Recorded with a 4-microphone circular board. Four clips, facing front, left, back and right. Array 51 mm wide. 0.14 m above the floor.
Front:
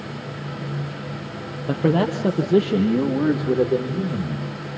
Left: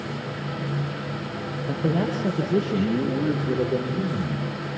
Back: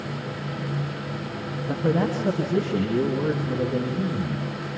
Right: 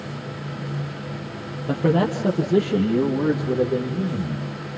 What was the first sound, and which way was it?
A man speaking, 25° right.